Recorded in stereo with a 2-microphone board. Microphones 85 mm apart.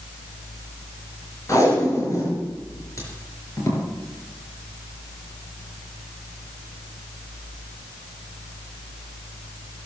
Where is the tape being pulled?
40° left (ahead or behind), 5 m.